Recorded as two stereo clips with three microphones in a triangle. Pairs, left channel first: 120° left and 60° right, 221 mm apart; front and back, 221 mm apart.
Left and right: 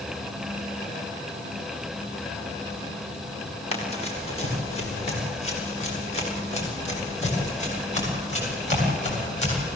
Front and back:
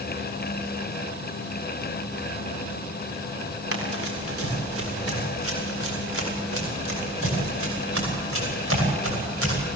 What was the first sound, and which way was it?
Running footsteps, straight behind.